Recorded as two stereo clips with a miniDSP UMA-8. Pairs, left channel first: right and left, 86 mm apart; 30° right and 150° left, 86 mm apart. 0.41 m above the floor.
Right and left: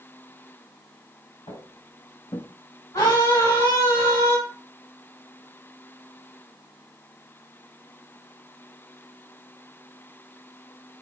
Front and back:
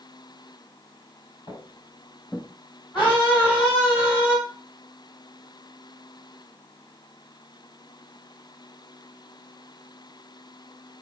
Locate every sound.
1.5 s footsteps: 75° right, 2 m; by 2.5 s 105° right, 1.1 m
2.9 s a scream: 110° right, 2.0 m